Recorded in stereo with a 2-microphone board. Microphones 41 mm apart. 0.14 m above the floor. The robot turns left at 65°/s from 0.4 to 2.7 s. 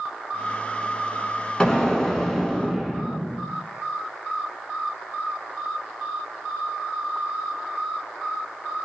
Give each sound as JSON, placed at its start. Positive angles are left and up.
{"t": 1.6, "sound": "an explosion", "side_deg": 20, "distance_m": 0.7}